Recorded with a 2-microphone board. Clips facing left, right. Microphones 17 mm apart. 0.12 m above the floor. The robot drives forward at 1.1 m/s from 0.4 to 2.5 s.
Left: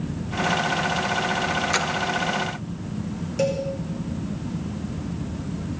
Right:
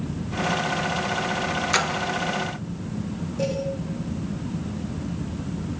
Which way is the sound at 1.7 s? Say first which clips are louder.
Right 1 dB; 15° right (ahead or behind).